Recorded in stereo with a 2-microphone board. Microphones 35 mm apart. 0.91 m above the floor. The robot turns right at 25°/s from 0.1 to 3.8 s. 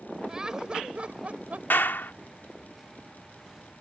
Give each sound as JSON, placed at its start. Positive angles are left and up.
{"t": 0.3, "sound": "laughter", "azimuth_deg": -160}
{"t": 1.7, "sound": "a clap", "side_deg": 85}